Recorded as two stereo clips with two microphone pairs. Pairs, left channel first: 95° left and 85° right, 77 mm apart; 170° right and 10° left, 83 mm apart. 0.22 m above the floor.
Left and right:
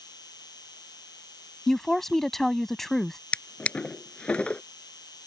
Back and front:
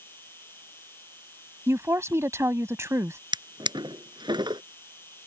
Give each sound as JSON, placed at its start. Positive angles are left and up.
{"t": 0.0, "sound": "an insect", "azimuth_deg": 125}
{"t": 1.7, "sound": "a woman speaking", "azimuth_deg": 10}
{"t": 3.3, "sound": "a drawer", "azimuth_deg": 20}